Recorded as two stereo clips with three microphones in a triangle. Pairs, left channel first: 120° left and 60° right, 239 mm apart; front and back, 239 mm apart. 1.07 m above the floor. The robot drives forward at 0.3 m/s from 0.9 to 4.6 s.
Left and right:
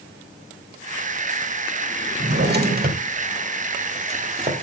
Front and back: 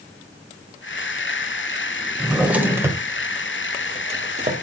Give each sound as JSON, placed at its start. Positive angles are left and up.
{"t": 2.2, "sound": "a drawer", "azimuth_deg": -90, "distance_m": 1.3}